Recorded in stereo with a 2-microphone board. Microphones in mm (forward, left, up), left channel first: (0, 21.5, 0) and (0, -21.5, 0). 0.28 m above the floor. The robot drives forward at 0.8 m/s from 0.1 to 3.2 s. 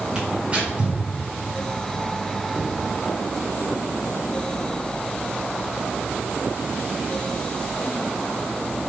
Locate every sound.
0.1 s tearing paper: 25° right (ahead or behind), 3.5 m; by 1.0 s 30° right (ahead or behind), 3 m
2.5 s knocking: 45° right (ahead or behind), 1.8 m